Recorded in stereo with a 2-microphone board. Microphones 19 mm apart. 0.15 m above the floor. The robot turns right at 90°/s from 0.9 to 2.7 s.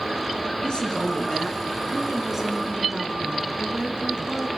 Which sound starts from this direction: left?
A woman speaking, at 0.6 s.